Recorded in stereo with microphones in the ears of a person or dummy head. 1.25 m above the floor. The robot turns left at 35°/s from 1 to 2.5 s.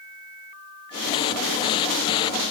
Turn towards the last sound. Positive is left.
No sound to turn to.